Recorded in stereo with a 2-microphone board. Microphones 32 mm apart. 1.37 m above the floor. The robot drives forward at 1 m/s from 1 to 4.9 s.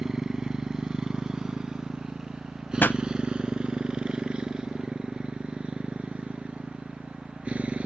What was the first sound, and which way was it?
A motorcycle, 15° right (ahead or behind).